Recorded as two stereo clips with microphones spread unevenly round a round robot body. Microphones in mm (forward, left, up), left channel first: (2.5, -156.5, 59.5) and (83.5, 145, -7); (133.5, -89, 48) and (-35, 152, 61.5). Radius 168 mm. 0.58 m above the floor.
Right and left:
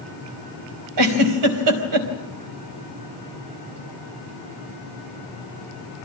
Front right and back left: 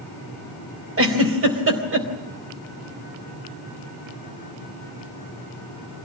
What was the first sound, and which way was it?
A giggle, 80° left.